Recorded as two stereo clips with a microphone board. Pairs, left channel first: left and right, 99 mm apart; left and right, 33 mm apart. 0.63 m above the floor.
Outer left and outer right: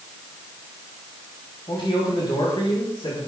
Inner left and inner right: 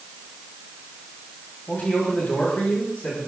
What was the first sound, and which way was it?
A man speaking, 55° left (ahead or behind).